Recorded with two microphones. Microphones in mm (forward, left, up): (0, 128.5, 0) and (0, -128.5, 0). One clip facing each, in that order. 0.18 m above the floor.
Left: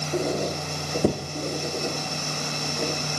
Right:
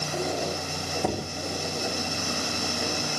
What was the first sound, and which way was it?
A squeak, 40° left (ahead or behind).